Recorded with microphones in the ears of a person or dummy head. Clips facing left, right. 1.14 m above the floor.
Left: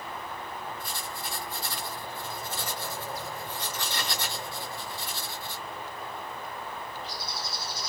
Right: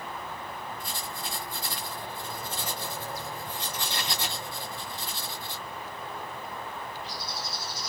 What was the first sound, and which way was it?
Writing, 20° right (ahead or behind).